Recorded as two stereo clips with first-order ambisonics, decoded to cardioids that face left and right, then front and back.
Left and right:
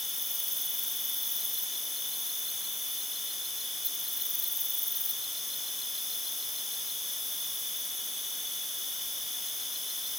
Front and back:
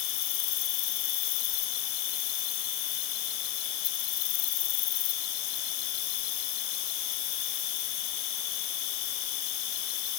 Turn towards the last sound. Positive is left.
turn(degrees=5)